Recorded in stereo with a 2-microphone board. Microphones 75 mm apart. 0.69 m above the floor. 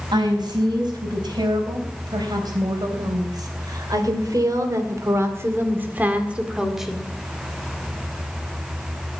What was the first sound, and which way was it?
A woman speaking, 75° right (ahead or behind).